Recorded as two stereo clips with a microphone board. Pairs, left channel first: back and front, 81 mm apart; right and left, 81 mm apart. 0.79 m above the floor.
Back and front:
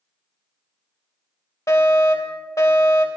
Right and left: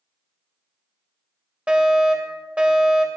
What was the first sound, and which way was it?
A fire alarm, 155° left.